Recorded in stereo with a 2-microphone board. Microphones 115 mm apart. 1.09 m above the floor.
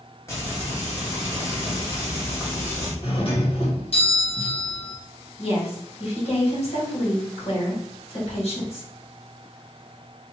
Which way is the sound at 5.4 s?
60° left (ahead or behind).